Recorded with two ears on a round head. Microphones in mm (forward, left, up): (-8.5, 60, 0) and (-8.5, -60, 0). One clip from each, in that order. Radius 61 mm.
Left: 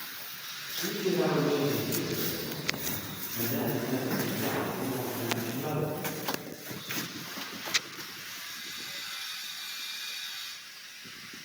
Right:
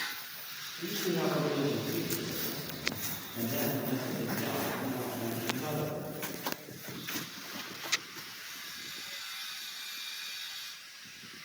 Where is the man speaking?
65° right (ahead or behind), 4 m.